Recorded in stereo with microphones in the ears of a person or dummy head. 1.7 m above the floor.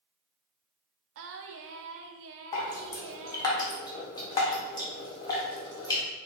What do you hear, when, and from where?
1.1 s singing: 65° right (ahead or behind), 0.5 m
2.5 s dripping: 20° left (ahead or behind), 1.0 m